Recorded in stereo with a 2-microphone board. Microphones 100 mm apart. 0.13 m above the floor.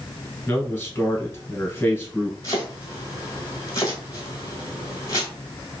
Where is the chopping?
35° left (ahead or behind), 1.2 m.